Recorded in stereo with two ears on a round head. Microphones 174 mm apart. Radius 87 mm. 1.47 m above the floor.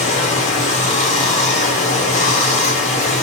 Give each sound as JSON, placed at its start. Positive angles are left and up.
{"t": 0.0, "sound": "running water", "side_deg": 40, "distance_m": 0.9}